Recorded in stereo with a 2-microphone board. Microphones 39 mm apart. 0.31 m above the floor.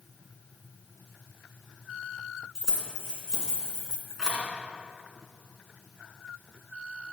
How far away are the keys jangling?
About 2 m.